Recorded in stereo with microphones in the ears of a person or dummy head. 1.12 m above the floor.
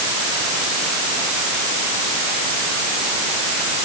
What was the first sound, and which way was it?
Only background noise.